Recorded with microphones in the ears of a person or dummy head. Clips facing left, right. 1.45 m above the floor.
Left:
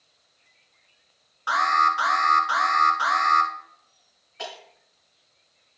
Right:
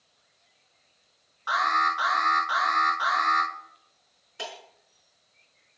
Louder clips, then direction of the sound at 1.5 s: Left 3 dB; 45° left (ahead or behind).